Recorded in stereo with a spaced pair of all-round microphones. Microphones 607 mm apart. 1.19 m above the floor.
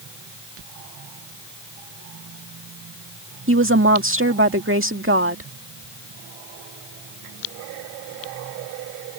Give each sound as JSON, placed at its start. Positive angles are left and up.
{"t": 3.5, "sound": "a woman speaking", "side_deg": -20}